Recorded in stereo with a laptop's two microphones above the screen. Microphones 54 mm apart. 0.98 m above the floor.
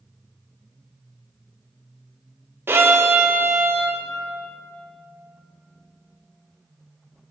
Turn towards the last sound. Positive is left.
turn(degrees=-50)  # may be behind; listen again after turning